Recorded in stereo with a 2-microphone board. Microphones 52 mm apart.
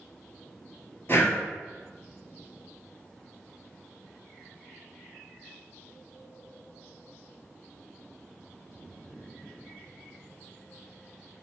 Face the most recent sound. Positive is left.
turn(degrees=45)  # may be behind; listen again after turning